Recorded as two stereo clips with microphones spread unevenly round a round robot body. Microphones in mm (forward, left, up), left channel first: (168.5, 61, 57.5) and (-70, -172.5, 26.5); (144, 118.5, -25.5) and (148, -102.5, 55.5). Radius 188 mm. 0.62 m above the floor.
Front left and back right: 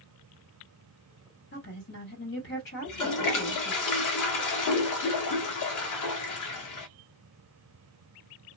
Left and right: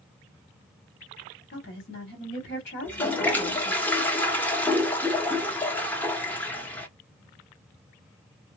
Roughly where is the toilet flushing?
Ahead left.